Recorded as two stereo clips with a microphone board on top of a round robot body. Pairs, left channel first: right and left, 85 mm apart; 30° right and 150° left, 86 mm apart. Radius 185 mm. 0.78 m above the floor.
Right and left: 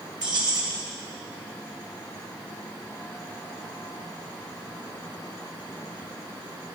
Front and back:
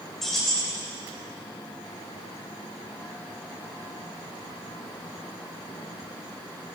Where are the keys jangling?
55° left, 3 m.